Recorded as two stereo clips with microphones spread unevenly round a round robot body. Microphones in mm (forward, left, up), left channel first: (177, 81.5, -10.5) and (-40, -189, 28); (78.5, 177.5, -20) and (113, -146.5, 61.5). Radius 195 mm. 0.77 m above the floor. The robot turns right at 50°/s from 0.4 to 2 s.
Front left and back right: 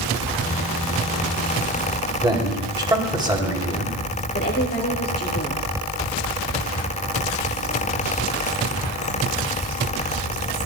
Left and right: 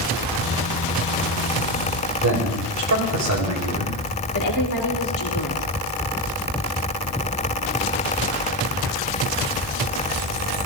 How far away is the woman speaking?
About 2.5 m.